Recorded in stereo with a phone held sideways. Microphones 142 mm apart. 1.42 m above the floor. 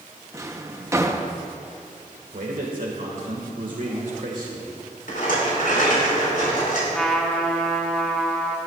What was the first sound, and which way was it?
A drawer, 20° right (ahead or behind).